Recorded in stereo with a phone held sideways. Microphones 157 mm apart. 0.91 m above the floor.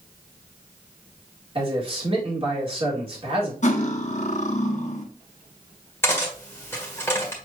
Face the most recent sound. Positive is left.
turn(degrees=15)  # may be behind; listen again after turning